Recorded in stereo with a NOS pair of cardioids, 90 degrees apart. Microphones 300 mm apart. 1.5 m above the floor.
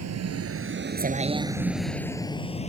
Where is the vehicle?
60° right; by 2.7 s 20° left.